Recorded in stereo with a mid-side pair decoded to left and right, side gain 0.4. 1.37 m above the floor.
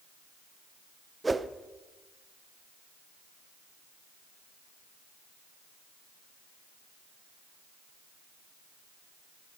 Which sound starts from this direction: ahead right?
A whoosh, at 1.2 s.